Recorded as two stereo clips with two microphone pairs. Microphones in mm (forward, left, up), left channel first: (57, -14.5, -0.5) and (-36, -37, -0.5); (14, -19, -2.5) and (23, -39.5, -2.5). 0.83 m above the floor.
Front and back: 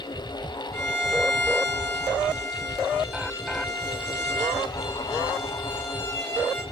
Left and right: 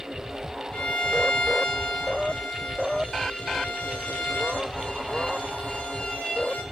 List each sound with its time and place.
0.7 s a violin: 75° left, 6 m